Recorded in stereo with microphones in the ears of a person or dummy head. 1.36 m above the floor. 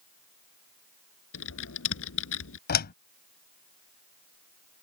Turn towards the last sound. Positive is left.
turn(degrees=55)  # may be behind; listen again after turning